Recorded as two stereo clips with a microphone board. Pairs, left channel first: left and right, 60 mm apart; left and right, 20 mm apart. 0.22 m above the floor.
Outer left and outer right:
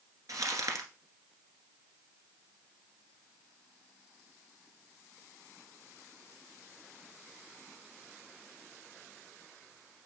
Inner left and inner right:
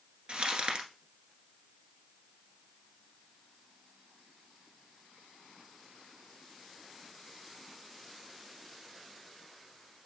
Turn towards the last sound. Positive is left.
turn(degrees=-75)  # may be behind; listen again after turning